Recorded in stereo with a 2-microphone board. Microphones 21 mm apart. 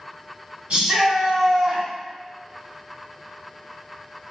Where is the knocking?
No knocking in this recording.